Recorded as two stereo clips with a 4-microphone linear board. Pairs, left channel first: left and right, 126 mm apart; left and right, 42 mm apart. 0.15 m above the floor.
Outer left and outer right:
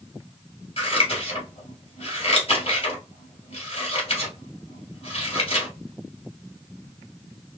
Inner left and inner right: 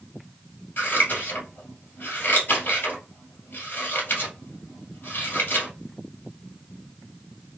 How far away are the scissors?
About 2.0 m.